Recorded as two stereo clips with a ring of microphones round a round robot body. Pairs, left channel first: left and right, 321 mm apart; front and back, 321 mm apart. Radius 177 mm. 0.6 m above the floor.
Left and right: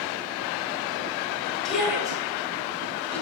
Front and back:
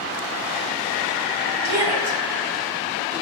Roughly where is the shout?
Behind.